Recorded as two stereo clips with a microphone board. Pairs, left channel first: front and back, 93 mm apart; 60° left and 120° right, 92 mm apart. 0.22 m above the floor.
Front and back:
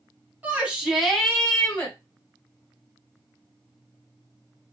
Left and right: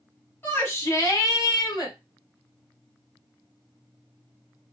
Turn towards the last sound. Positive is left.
turn(degrees=55)